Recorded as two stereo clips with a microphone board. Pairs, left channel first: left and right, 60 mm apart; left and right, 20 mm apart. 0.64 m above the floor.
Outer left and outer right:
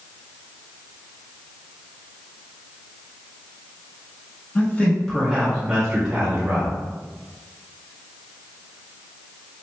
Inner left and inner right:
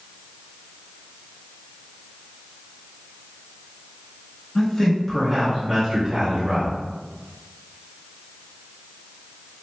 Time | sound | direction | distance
4.5 | a man speaking | 30° left (ahead or behind) | 1.3 m